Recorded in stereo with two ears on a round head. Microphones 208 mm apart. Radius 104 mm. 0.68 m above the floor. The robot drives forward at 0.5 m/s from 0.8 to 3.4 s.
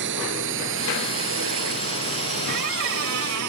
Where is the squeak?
55° right (ahead or behind); by 3.5 s 65° right (ahead or behind).